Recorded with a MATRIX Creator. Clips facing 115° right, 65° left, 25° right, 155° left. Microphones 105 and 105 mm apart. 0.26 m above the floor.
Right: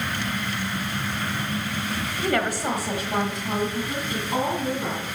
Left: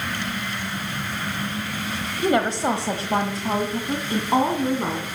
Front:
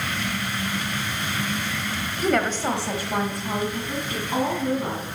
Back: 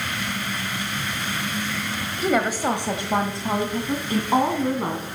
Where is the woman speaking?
75° left, 1.1 m; by 5.2 s 115° left, 2.5 m.